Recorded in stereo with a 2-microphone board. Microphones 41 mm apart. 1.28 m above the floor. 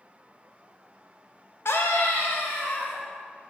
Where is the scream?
85° left, 0.6 m.